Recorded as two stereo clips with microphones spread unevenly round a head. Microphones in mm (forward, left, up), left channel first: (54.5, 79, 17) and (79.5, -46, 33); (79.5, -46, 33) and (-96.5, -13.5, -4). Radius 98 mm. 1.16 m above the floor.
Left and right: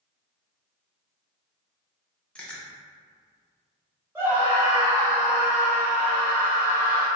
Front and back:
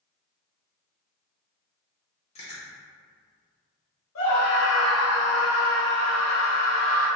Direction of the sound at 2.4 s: 40° left.